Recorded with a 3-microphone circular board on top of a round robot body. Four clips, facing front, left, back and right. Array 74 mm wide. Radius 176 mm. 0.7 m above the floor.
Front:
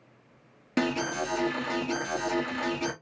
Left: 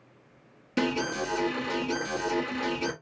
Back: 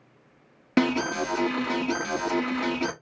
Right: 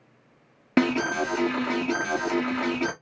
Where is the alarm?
115° right, 1.6 m.